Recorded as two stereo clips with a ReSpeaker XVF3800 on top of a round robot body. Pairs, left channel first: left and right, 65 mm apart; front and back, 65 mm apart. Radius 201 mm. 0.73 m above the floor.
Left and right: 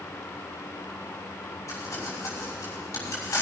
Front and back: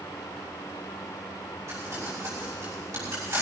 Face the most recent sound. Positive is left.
turn(degrees=135)